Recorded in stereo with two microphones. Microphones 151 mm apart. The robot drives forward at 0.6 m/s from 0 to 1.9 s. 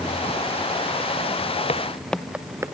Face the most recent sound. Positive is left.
turn(degrees=-20)  # may be behind; listen again after turning